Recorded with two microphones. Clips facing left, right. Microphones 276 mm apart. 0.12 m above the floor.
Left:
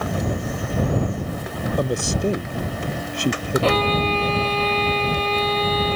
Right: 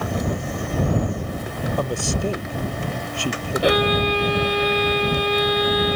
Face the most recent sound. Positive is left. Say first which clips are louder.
# right 4 dB
turn(degrees=-15)  # may be behind; listen again after turning